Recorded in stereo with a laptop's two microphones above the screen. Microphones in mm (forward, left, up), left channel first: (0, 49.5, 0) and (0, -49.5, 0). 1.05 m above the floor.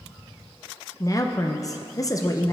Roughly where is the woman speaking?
Left.